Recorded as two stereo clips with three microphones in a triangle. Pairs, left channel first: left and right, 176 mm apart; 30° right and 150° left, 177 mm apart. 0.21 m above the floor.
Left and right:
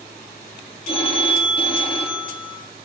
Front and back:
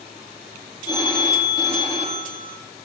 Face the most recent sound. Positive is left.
turn(degrees=35)